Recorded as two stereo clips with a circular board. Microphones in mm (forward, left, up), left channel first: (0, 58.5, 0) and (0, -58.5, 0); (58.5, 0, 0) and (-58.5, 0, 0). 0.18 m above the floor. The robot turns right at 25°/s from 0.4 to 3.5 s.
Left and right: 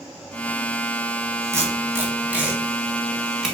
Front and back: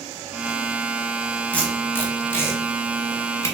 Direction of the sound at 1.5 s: 55° right.